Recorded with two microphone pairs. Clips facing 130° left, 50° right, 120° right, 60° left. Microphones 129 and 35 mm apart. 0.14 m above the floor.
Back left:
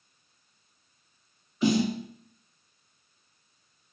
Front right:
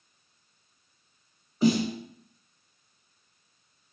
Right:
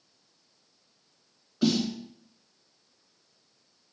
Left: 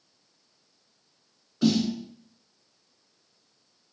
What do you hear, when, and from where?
1.6 s a snare drum: 40° right, 1.6 m